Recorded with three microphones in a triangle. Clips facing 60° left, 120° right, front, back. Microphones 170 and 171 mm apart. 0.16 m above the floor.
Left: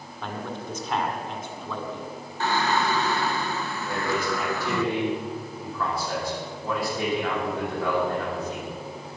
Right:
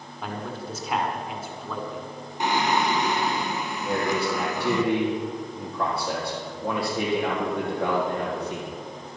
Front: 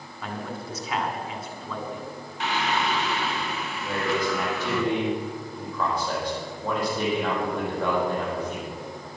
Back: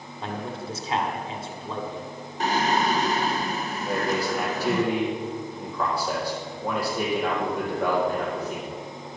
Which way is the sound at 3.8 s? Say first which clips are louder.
Right 3 dB, even; 100° right.